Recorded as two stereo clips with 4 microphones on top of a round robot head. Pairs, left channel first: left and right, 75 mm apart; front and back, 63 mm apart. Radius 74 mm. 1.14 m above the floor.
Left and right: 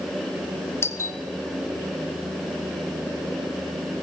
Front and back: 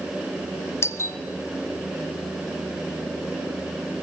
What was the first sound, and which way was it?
A doorbell, 40° left.